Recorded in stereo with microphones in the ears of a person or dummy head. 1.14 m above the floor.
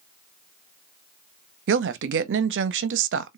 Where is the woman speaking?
55° right (ahead or behind), 0.6 m.